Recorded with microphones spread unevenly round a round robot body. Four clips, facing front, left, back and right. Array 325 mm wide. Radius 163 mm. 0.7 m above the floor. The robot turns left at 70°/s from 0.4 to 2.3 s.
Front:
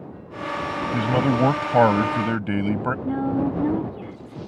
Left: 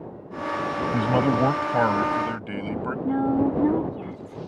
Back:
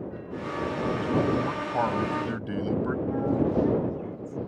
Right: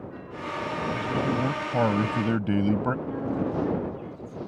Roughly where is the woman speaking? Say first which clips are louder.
Left 7 dB, front 3 dB; ahead left.